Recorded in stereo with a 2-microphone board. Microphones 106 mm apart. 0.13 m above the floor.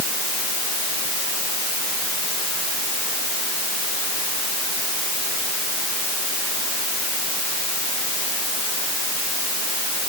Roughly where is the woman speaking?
No woman speaking in this recording.